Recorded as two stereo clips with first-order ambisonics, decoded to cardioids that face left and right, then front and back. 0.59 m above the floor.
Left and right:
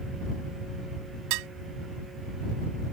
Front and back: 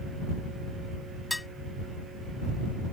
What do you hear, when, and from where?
1.3 s dishes clattering: 85° right